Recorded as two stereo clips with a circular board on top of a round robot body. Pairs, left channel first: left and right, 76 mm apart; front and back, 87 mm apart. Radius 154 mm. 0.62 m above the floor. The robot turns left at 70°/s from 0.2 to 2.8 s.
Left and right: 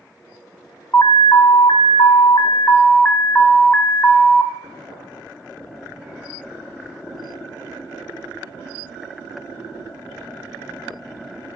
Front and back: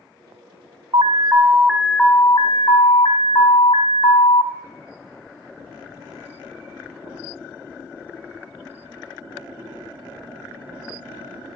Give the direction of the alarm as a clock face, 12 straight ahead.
7 o'clock.